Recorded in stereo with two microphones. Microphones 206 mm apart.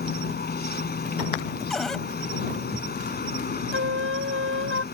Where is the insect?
50° left (ahead or behind).